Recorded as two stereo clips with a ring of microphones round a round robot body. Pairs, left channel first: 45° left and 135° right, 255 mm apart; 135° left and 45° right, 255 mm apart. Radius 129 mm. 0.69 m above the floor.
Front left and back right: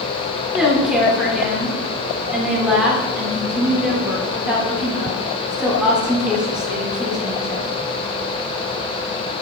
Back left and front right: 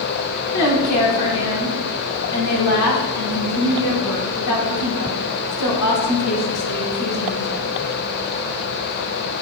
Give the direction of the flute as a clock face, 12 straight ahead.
No flute in this recording.